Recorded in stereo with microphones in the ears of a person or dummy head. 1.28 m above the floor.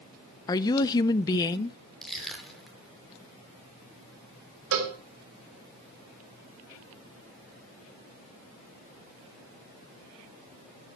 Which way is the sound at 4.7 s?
75° right (ahead or behind).